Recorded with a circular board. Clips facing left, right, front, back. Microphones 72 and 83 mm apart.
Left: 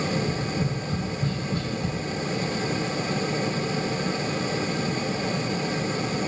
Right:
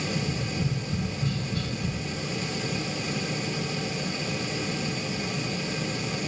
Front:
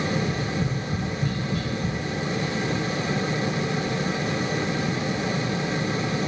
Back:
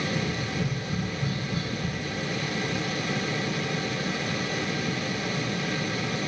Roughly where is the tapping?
Left.